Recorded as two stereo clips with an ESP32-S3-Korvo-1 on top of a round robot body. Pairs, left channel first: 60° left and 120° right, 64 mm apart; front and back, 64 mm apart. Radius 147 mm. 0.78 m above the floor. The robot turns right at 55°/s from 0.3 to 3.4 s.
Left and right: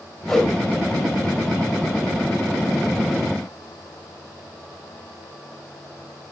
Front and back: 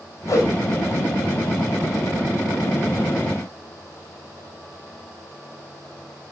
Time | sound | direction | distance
0.3 | a whoosh | 25° right | 1.2 m